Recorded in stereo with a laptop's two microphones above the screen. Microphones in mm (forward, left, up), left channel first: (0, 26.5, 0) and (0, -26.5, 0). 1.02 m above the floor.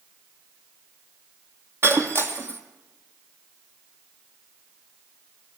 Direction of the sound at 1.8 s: 55° right (ahead or behind).